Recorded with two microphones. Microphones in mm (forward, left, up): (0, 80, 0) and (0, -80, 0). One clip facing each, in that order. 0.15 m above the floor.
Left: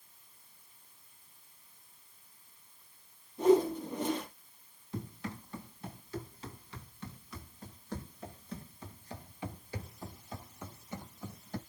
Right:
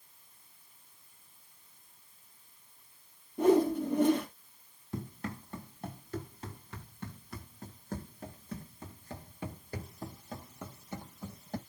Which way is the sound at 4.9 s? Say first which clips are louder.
Right 1 dB; 50° right (ahead or behind).